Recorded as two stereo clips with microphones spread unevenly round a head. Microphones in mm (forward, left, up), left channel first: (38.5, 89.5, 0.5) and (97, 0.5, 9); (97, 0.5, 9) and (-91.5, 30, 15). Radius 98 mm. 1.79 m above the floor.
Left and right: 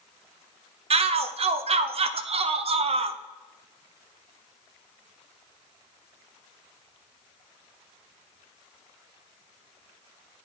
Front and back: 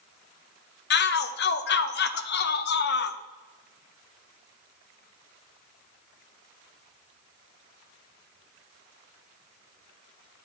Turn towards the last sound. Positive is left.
turn(degrees=-45)